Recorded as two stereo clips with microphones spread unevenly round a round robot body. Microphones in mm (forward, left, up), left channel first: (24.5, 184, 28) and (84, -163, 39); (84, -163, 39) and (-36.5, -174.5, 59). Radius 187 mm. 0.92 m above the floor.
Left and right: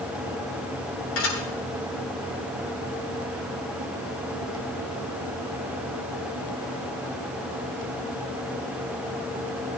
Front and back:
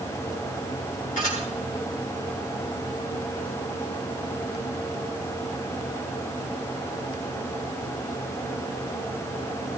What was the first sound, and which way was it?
Dishes clattering, 45° left.